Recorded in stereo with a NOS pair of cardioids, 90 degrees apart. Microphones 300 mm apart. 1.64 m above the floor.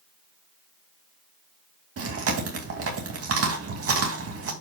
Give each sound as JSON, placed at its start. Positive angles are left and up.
{"t": 2.0, "sound": "chewing", "azimuth_deg": -50, "distance_m": 2.5}